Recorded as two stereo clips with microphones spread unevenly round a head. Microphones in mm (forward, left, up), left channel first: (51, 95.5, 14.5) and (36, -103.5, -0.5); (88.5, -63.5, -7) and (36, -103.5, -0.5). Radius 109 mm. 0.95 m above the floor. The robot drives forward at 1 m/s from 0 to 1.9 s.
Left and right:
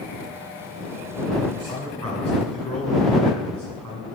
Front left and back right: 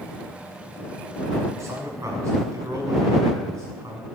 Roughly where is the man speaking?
Behind right.